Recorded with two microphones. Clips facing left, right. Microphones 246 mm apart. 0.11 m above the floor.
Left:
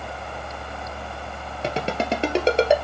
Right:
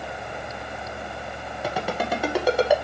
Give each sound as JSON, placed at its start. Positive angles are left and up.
{"t": 1.6, "sound": "a ringtone", "side_deg": 30, "distance_m": 1.2}